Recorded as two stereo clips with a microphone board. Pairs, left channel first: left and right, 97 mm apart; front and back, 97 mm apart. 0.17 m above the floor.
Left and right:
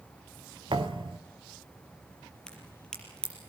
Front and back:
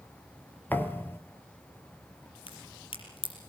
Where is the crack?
10° left, 5.5 m.